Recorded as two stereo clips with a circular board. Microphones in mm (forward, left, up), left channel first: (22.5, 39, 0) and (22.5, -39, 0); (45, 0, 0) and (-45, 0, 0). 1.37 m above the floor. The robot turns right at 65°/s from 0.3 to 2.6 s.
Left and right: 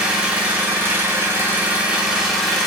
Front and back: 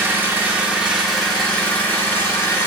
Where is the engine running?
145° right, 0.7 m; by 2.7 s 5° left, 0.7 m.